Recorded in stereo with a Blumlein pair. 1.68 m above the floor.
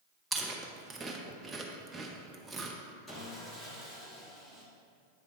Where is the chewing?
15° right, 0.9 m.